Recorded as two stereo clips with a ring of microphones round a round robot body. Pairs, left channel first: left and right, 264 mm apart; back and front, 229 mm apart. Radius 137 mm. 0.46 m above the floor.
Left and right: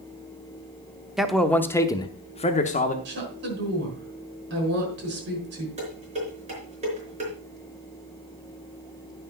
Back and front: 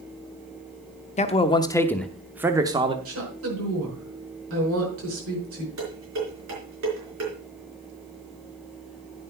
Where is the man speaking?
175° right, 0.9 m; by 3.0 s 55° left, 1.0 m.